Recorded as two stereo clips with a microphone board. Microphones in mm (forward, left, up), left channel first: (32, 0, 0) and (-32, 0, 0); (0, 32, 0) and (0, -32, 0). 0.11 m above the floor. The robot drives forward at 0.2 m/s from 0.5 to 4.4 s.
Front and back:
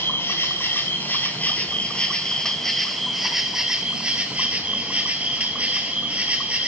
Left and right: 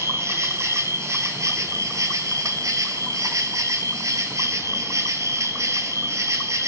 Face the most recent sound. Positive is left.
turn(degrees=-115)